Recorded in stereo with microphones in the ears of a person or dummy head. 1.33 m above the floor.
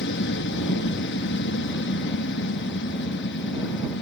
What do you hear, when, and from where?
0.0 s an aircraft: 55° left (ahead or behind)